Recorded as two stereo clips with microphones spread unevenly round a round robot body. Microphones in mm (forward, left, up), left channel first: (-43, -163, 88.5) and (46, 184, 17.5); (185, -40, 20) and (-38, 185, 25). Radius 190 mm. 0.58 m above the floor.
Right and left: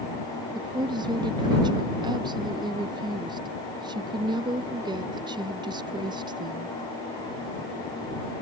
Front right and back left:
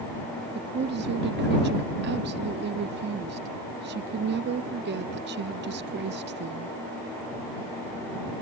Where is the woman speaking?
120° left.